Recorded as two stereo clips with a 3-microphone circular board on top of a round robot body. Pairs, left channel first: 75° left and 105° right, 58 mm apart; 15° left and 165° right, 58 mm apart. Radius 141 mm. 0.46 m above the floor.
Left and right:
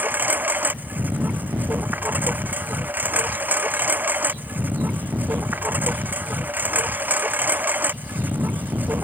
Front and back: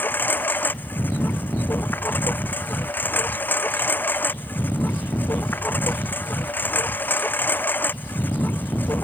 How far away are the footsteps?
I don't hear footsteps.